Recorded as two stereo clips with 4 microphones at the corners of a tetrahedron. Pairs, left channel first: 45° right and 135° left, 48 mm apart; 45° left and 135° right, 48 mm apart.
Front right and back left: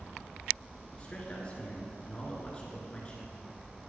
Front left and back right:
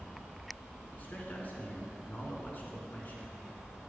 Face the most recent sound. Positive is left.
turn(degrees=15)